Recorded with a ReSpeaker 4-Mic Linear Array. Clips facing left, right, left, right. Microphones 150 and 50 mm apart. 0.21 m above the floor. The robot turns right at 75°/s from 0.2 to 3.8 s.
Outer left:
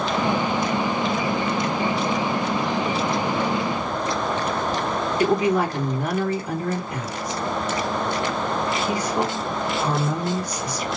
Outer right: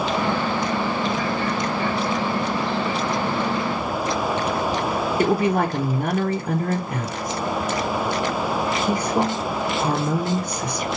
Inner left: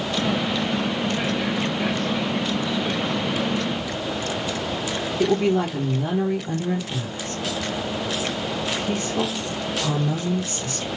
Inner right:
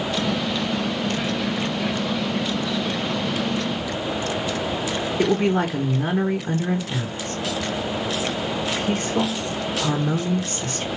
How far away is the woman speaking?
About 1.7 m.